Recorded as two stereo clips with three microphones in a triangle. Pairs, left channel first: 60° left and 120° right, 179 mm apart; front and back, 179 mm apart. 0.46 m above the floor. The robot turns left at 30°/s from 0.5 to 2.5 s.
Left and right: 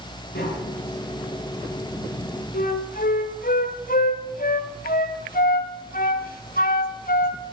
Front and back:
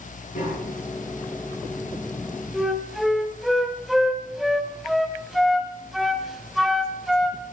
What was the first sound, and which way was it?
Tapping, 40° left.